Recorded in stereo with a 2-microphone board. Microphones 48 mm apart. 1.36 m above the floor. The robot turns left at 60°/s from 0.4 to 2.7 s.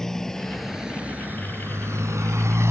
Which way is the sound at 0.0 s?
10° left (ahead or behind).